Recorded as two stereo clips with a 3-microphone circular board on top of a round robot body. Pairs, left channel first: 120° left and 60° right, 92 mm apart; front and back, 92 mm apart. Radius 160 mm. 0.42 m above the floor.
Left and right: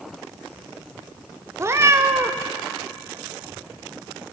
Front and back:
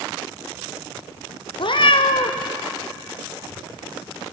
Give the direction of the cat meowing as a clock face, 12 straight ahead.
12 o'clock.